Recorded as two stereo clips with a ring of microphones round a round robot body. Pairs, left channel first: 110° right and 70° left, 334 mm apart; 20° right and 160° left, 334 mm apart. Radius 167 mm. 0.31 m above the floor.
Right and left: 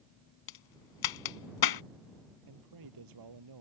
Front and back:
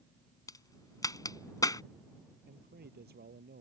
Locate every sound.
0.5 s a crack: 100° right
2.5 s a man speaking: 95° left